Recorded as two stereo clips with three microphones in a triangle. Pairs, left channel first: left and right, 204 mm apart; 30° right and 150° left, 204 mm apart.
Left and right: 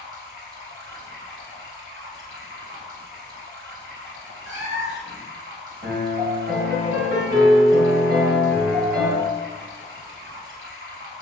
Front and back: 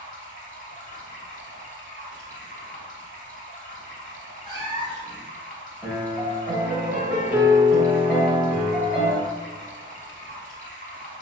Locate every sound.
0.0 s running water: 80° right, 0.7 m
4.5 s a cat meowing: 145° right, 1.2 m
5.8 s a piano: 125° right, 0.9 m